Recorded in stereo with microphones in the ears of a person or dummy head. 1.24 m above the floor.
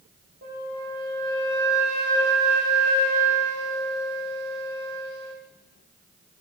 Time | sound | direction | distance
0.4 | a flute | 50° right (ahead or behind) | 1.1 m